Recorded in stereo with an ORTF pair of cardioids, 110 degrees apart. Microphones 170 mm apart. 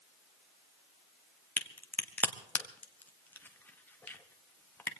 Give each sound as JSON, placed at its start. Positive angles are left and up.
{"t": 1.6, "sound": "a crack", "azimuth_deg": 10, "distance_m": 1.2}